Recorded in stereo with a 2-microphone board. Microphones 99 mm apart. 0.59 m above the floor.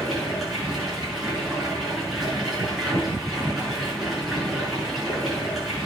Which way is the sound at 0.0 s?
Centre (ahead or behind).